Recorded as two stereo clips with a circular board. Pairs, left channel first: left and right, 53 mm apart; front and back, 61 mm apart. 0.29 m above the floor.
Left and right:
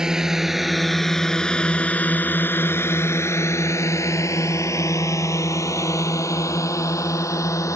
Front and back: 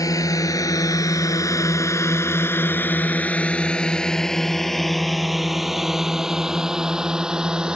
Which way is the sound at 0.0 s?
10° right.